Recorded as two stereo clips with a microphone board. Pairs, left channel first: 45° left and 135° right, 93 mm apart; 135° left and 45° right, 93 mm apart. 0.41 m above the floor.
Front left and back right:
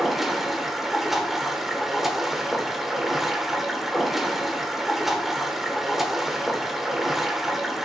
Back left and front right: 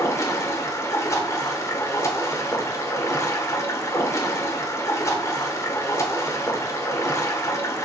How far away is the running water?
About 1.2 m.